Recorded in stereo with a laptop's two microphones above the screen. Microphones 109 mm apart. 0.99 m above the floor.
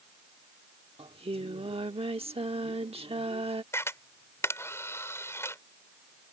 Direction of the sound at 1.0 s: 65° right (ahead or behind).